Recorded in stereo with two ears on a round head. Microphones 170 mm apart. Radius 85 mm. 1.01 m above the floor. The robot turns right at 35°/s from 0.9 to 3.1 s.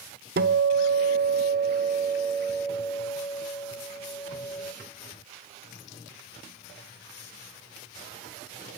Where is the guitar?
60° right, 1.1 m; by 4.7 s 15° left, 1.1 m.